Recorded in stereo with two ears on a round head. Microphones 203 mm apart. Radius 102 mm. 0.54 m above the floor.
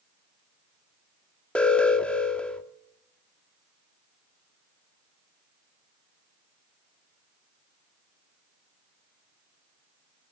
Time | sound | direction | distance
1.6 | an alarm | 5° left (ahead or behind) | 1.0 m